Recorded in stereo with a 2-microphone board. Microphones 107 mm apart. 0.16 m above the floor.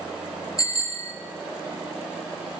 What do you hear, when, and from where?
0.6 s a bicycle bell: 35° left (ahead or behind), 2.5 m